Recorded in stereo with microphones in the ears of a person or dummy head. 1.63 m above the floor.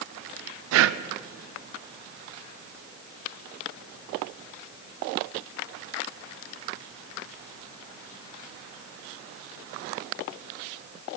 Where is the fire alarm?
No fire alarm in this recording.